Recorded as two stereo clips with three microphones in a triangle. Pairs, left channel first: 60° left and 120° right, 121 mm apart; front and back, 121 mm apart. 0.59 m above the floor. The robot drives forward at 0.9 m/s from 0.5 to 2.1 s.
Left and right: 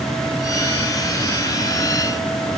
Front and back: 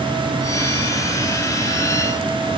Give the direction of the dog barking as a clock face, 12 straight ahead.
I don't hear a dog barking.